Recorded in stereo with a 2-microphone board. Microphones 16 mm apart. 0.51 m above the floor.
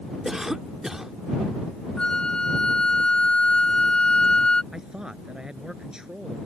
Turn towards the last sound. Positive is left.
turn(degrees=-50)  # may be behind; listen again after turning